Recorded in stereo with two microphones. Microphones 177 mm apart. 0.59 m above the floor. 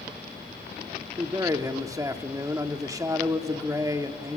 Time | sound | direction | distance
1.2 | a man speaking | 20° right (ahead or behind) | 1.1 m